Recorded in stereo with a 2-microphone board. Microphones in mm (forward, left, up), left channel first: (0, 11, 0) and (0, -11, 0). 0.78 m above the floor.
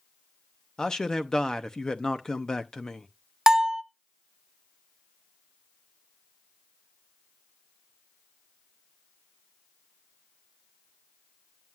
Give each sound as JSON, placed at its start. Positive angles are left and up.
{"t": 0.8, "sound": "a man speaking", "side_deg": 35, "distance_m": 0.6}
{"t": 3.5, "sound": "a bell", "side_deg": -30, "distance_m": 0.6}